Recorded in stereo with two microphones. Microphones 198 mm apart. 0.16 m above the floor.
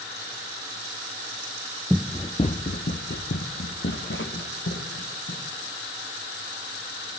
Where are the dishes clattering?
I don't hear dishes clattering.